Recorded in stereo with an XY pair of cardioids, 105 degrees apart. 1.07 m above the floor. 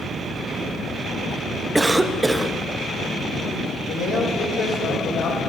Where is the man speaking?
60° left, 4.5 m.